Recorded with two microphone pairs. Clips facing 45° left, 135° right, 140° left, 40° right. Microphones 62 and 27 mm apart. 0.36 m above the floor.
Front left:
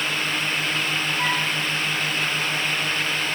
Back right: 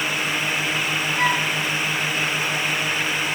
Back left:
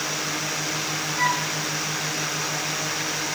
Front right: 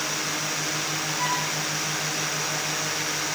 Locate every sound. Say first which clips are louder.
1.2 s a flute: back right 5 dB, back left 5 dB; 175° right, 4.5 m